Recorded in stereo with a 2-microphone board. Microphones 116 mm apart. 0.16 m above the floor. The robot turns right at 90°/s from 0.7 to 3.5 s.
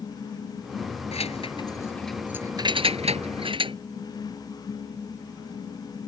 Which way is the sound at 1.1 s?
65° left (ahead or behind).